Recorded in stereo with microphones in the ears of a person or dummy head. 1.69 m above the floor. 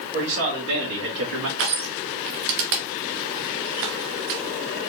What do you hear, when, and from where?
0.1 s a man speaking: 65° right (ahead or behind), 3 m
1.6 s crushing: 60° right (ahead or behind), 1.0 m